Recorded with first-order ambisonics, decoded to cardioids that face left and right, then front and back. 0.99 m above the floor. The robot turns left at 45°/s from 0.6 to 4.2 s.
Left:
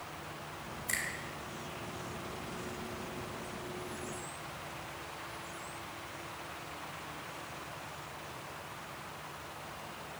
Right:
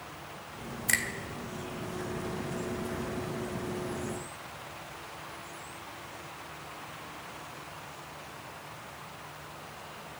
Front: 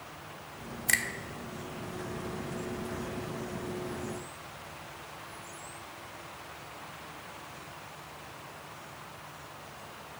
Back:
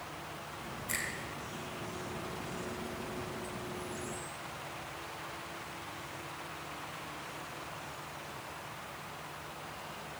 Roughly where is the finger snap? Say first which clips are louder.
Right 7 dB, front 9 dB; ahead right.